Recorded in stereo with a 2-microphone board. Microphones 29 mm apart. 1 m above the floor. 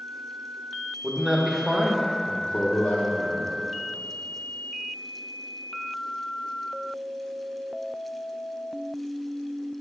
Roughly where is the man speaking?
Centre.